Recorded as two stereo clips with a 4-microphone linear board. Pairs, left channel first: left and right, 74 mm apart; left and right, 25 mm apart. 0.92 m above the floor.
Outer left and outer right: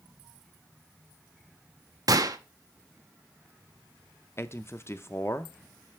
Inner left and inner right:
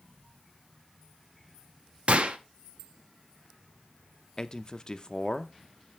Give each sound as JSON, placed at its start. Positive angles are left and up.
{"t": 2.1, "sound": "a gunshot", "side_deg": -50, "distance_m": 0.8}
{"t": 4.4, "sound": "a man speaking", "side_deg": 35, "distance_m": 0.7}